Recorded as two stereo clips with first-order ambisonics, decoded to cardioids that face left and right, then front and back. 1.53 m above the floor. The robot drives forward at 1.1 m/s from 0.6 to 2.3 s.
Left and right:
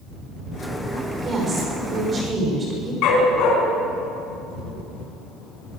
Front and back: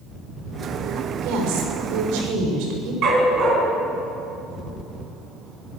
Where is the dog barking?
125° left, 4 m.